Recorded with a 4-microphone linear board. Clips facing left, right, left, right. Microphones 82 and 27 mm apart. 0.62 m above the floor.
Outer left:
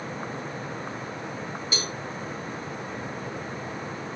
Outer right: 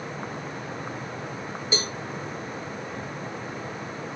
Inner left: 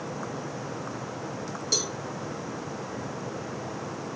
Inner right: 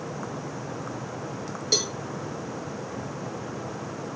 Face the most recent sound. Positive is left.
turn(degrees=-30)  # may be behind; listen again after turning